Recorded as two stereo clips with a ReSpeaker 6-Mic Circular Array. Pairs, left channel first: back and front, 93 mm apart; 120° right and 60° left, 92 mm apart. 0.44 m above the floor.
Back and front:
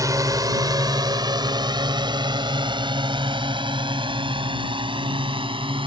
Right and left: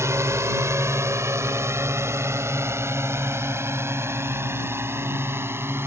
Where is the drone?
20° left; by 5.9 s straight ahead.